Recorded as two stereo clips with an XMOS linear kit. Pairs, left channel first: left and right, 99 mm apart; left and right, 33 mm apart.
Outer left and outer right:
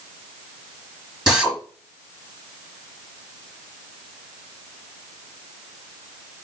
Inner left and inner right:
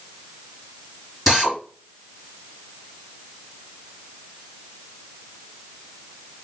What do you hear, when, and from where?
1.3 s a drill: 5° right (ahead or behind), 3.5 m